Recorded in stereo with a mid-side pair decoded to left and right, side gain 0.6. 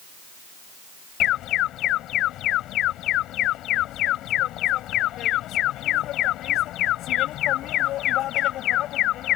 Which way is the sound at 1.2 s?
60° left.